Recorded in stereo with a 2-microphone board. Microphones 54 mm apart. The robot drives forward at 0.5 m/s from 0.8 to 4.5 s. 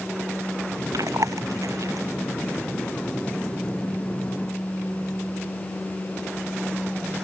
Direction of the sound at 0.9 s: 85° right.